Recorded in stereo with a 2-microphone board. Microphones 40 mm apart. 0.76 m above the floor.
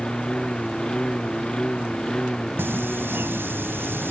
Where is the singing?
80° right.